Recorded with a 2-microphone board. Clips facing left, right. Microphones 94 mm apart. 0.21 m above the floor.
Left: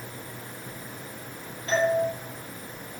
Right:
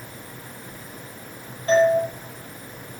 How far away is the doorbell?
About 8.5 m.